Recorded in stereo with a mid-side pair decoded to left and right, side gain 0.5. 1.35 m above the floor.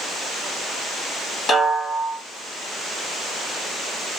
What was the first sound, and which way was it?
A snare drum, 40° left.